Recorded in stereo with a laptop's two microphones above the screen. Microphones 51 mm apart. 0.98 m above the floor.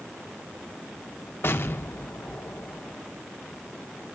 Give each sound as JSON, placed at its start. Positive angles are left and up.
{"t": 1.4, "sound": "an explosion", "side_deg": 55, "distance_m": 0.7}